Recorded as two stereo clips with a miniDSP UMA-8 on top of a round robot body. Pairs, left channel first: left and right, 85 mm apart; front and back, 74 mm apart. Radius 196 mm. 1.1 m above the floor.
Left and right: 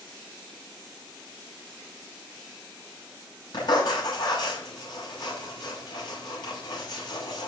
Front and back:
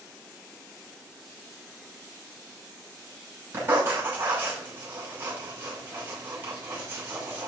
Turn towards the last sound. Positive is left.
turn(degrees=120)